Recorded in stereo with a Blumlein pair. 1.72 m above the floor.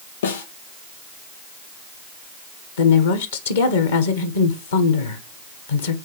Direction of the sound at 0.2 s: 65° left.